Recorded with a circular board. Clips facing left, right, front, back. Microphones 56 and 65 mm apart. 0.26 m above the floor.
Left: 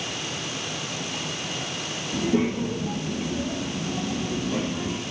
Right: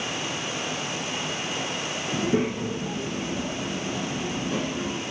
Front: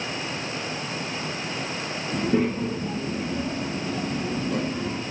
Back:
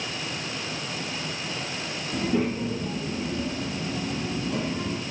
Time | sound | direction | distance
2.1 | a child speaking | 45° right | 2 m